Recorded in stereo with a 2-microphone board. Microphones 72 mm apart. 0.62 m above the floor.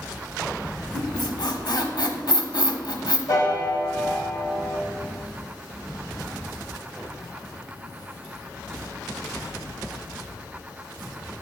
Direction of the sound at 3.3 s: 40° left (ahead or behind).